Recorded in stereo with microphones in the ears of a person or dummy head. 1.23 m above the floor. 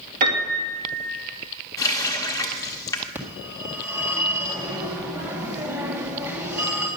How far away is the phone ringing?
About 1.7 m.